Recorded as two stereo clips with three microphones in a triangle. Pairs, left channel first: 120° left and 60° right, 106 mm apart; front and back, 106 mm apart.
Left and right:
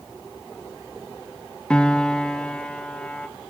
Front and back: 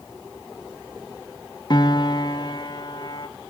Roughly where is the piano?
Ahead left.